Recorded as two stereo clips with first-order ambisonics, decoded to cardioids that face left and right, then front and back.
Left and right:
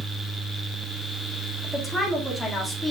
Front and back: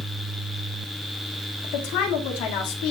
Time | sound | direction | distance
1.6 | a woman speaking | 5° left | 1.9 m